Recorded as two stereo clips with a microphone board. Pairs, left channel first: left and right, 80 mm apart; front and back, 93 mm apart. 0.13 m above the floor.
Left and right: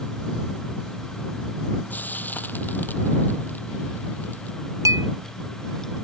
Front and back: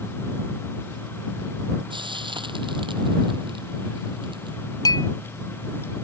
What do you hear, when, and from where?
1.9 s frying: 155° left
4.8 s a clink: 45° right